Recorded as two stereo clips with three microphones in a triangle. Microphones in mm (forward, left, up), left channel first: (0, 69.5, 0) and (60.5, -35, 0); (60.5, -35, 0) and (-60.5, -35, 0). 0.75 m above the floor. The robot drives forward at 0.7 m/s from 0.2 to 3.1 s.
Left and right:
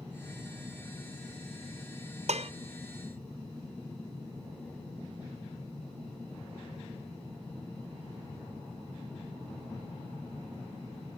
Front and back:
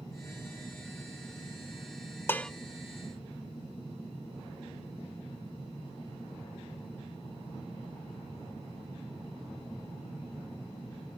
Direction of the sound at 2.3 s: 70° right.